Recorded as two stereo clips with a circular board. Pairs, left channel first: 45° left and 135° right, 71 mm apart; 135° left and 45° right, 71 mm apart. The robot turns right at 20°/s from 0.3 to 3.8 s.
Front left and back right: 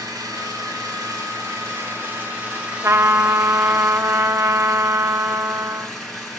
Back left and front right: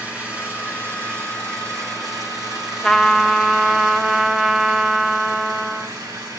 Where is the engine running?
115° right, 5 m; by 6.4 s 45° right, 5 m.